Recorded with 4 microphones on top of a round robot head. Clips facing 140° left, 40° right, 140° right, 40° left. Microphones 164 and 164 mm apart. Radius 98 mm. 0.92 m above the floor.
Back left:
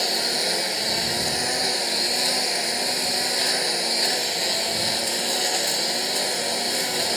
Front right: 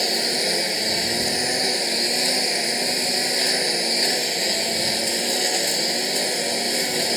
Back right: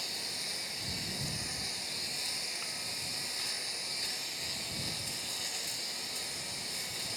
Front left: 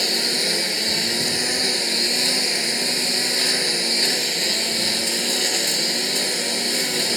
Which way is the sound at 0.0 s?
30° left.